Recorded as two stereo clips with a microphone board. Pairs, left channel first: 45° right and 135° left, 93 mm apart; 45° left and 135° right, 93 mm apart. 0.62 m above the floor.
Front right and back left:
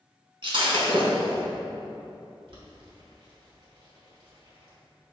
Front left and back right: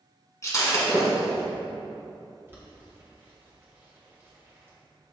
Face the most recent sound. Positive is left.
turn(degrees=160)